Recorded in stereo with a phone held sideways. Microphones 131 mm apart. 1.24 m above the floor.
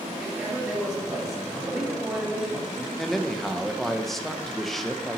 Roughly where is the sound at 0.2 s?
Centre.